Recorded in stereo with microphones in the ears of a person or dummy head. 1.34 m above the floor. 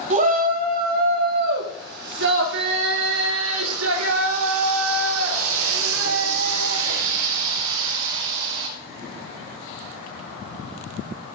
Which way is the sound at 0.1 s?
35° right (ahead or behind).